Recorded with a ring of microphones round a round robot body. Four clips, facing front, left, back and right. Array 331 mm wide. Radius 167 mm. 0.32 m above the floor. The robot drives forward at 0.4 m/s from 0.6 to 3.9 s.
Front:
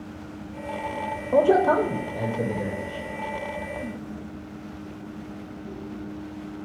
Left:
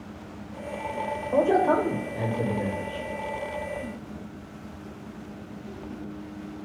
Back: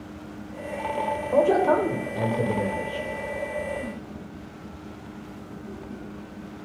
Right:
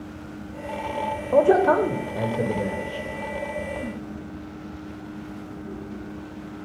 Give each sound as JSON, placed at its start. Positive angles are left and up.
{"t": 1.3, "sound": "a man speaking", "azimuth_deg": -60, "distance_m": 0.9}